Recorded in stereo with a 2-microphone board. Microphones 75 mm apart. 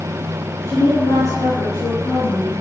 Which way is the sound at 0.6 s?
60° left (ahead or behind).